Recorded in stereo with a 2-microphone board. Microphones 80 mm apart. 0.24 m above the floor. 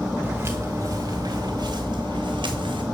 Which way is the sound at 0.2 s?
25° right (ahead or behind).